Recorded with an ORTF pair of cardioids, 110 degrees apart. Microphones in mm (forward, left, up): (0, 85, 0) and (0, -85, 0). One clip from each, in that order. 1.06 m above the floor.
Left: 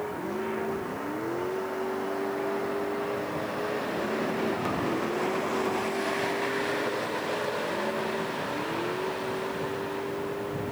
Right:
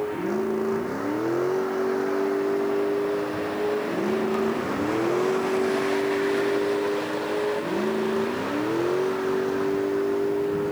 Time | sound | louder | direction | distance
0.0 | a vehicle | right 5 dB | 40° right | ?